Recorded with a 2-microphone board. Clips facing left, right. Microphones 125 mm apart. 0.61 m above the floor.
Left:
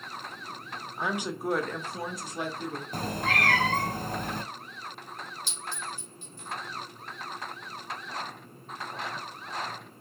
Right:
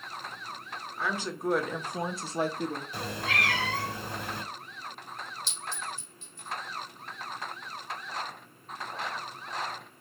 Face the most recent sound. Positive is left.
turn(degrees=55)  # may be behind; listen again after turning